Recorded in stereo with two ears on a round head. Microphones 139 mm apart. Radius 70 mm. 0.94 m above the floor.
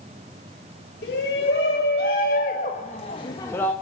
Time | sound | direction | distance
1.0 | a shout | 75° left (ahead or behind) | 2.5 m